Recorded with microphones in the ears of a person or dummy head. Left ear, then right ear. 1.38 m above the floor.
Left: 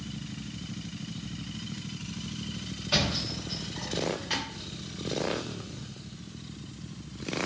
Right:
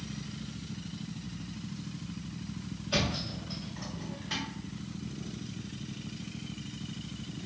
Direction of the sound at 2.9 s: 30° left (ahead or behind).